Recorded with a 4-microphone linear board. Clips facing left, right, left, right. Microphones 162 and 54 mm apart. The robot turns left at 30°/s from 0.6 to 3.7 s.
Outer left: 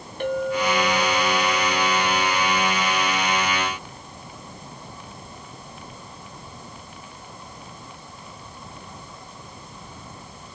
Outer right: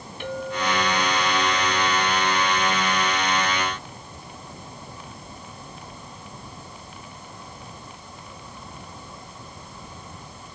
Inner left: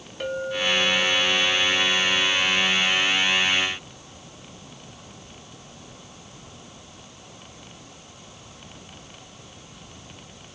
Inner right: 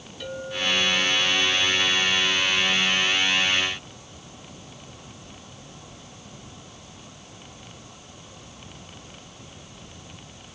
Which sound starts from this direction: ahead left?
A clink, at 0.2 s.